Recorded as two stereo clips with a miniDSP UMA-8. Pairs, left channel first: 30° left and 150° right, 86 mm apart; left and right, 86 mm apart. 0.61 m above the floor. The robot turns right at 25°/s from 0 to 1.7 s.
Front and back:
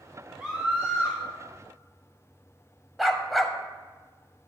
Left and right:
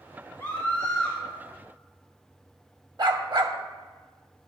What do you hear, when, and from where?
0.4 s a scream: 135° left, 1.8 m; by 1.2 s 155° left, 1.8 m
3.0 s a dog barking: 60° right, 0.7 m